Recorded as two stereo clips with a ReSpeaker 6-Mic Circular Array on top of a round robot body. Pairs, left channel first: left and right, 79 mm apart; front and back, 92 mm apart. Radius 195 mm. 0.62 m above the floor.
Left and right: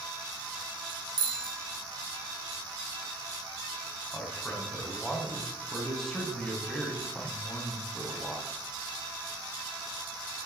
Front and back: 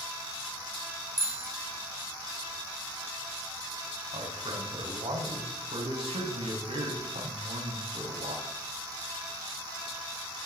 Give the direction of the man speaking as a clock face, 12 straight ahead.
6 o'clock.